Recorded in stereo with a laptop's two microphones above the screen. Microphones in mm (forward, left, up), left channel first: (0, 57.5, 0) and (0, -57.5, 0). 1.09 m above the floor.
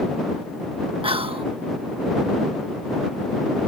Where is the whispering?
55° right (ahead or behind).